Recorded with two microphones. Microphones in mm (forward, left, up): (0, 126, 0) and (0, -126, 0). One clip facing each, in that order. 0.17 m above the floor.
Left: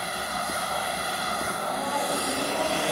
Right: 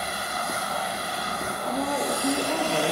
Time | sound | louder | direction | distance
1.6 | a woman speaking | right 5 dB | 65° right (ahead or behind) | 5 m